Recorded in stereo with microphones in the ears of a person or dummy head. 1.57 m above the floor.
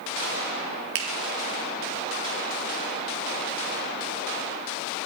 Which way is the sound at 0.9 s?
60° right (ahead or behind).